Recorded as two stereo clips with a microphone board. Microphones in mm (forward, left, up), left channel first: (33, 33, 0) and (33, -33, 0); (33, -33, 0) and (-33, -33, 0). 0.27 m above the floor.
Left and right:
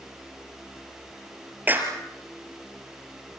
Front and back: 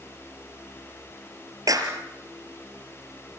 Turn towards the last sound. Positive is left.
turn(degrees=-150)